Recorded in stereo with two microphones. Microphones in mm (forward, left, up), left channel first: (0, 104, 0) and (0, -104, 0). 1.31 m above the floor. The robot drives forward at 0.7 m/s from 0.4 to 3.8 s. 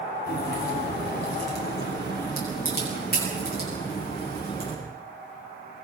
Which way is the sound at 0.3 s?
55° left (ahead or behind).